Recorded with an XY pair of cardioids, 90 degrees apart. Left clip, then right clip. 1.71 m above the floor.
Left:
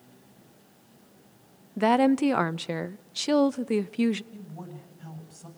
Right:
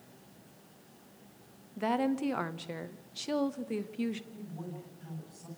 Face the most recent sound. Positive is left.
turn(degrees=45)